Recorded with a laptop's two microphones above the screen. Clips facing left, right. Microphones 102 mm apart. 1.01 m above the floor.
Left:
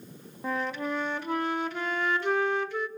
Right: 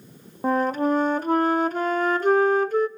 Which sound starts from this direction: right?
A flute, at 0.4 s.